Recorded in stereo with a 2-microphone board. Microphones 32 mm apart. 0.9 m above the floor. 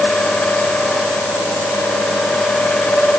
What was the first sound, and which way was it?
Only background noise.